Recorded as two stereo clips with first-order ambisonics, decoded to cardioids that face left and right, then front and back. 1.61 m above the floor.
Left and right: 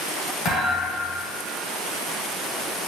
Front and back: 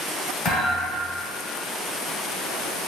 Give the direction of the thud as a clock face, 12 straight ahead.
11 o'clock.